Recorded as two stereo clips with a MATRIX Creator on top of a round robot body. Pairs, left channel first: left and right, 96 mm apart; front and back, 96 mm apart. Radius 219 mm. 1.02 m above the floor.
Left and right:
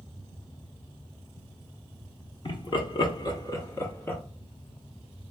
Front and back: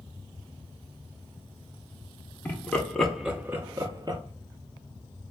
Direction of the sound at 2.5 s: 70° left.